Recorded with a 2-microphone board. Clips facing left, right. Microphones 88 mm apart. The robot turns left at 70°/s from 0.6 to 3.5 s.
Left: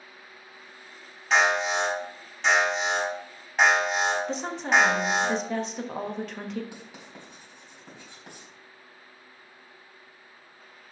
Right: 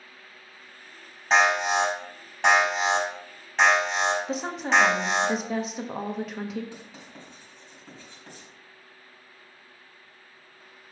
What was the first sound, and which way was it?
An alarm, 35° right.